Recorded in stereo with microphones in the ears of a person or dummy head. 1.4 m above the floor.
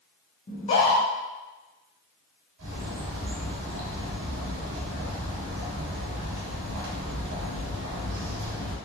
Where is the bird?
70° right (ahead or behind), 1.0 m.